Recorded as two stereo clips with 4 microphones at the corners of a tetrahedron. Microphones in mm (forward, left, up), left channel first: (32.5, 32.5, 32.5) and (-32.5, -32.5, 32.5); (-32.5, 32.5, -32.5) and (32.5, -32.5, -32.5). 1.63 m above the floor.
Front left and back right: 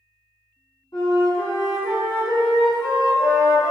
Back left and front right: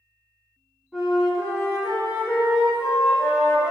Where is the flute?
40° left, 1.7 m.